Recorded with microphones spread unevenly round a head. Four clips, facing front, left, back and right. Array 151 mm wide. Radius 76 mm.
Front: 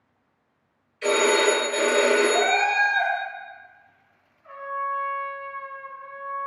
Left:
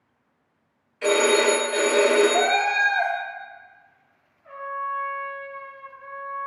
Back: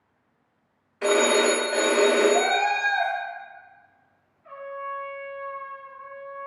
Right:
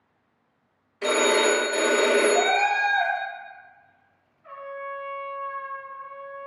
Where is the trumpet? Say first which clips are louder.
Left 5 dB, front 5 dB; 70° right, 1.6 m.